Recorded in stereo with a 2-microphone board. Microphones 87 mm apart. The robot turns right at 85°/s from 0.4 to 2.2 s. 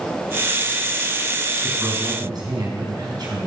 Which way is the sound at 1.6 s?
170° right.